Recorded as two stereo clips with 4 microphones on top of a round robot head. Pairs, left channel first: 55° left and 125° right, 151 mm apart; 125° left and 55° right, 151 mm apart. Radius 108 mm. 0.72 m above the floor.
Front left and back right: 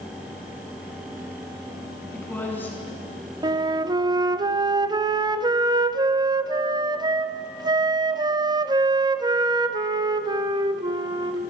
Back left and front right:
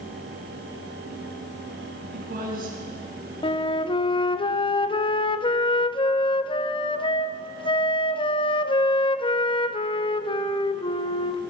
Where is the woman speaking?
25° right, 7 m.